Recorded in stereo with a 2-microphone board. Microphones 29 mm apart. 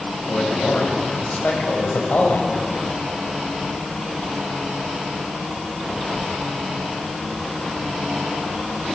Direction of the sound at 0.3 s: 65° left (ahead or behind).